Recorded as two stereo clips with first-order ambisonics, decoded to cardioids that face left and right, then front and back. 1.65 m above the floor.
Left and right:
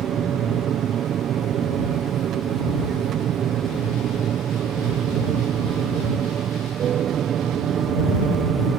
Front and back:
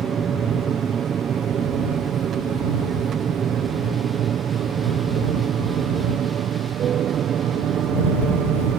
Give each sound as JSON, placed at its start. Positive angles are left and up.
{"t": 0.0, "sound": "an aircraft", "azimuth_deg": -130}